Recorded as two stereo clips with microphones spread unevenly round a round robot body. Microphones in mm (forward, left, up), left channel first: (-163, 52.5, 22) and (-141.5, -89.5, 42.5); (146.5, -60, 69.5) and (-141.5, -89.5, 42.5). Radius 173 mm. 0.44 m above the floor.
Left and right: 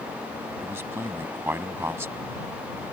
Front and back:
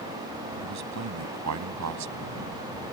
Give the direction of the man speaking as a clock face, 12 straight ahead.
5 o'clock.